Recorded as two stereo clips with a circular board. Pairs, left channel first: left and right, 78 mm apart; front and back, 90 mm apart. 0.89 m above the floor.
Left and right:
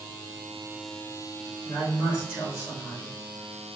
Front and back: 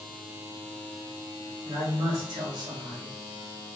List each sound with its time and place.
1.6 s a man speaking: 150° left, 3 m